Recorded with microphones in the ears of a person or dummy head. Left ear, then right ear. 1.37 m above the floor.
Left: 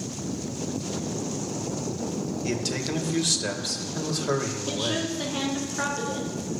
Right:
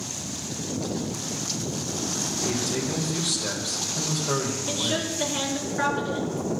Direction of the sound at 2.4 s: 80° left.